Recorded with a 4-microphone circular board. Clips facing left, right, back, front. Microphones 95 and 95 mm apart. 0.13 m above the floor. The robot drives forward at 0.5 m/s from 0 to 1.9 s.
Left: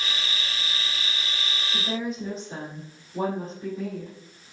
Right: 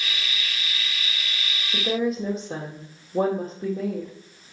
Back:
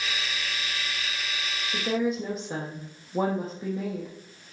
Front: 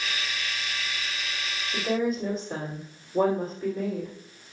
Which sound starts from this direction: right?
A woman speaking, at 1.7 s.